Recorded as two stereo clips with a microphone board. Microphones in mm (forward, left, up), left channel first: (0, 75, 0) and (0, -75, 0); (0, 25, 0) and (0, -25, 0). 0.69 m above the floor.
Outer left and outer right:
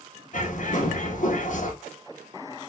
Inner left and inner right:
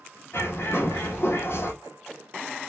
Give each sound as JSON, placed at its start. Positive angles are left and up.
{"t": 0.3, "sound": "a bird", "side_deg": 60, "distance_m": 1.4}